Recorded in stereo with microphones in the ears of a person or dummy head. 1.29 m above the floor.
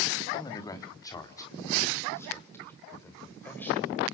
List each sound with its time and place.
0.3 s a man speaking: 20° left (ahead or behind), 2.5 m; by 4.0 s 10° left (ahead or behind), 6 m